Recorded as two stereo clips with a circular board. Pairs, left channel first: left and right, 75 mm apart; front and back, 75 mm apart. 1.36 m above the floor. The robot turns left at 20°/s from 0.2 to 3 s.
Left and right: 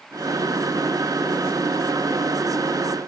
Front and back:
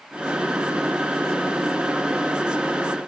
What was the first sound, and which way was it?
Only background noise.